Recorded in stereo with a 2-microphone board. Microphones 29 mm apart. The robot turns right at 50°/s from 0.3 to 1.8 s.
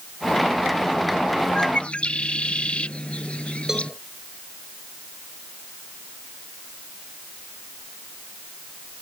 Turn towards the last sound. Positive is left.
turn(degrees=-15)  # may be behind; listen again after turning